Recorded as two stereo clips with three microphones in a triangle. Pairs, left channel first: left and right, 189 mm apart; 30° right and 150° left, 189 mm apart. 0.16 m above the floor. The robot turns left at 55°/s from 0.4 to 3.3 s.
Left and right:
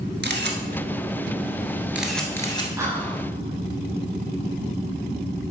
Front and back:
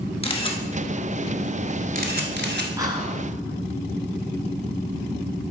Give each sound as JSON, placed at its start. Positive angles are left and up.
{"t": 0.2, "sound": "a camera shutter", "azimuth_deg": -85, "distance_m": 1.0}
{"t": 2.8, "sound": "whispering", "azimuth_deg": -150, "distance_m": 1.3}